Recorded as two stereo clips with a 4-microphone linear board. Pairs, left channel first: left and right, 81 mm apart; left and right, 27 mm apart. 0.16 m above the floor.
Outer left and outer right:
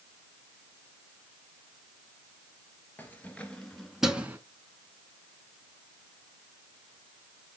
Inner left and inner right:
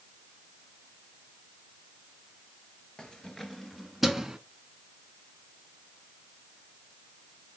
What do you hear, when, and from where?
3.0 s keys jangling: 25° left (ahead or behind), 2.5 m; by 4.4 s 25° right (ahead or behind), 1.4 m